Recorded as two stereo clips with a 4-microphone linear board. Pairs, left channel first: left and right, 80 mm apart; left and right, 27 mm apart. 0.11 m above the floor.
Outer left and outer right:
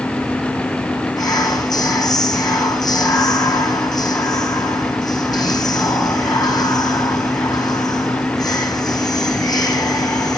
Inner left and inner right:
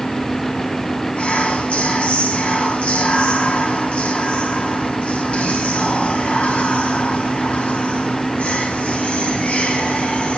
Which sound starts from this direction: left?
Whispering, at 1.2 s.